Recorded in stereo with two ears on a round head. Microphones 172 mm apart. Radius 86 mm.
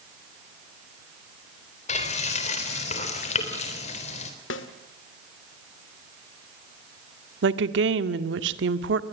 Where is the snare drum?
70° left (ahead or behind), 2.0 m.